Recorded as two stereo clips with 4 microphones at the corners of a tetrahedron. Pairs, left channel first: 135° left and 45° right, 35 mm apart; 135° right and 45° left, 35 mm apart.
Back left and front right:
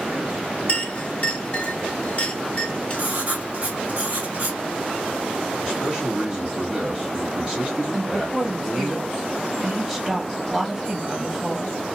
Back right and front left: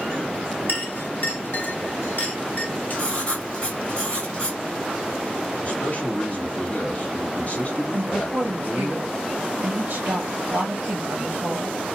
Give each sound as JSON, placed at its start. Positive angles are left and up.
{"t": 0.7, "sound": "a clink", "azimuth_deg": -175, "distance_m": 1.2}
{"t": 2.9, "sound": "writing", "azimuth_deg": -75, "distance_m": 1.6}
{"t": 5.6, "sound": "a man speaking", "azimuth_deg": -105, "distance_m": 1.6}
{"t": 7.9, "sound": "a woman speaking", "azimuth_deg": 25, "distance_m": 0.8}